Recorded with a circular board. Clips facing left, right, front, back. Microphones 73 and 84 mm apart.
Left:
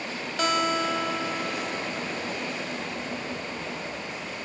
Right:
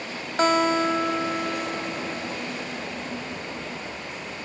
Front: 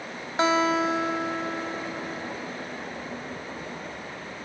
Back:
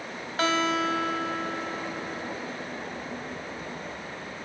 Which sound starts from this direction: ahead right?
A guitar, at 0.4 s.